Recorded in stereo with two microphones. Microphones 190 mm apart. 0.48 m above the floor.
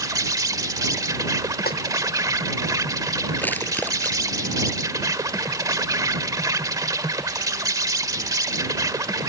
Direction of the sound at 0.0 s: 20° right (ahead or behind).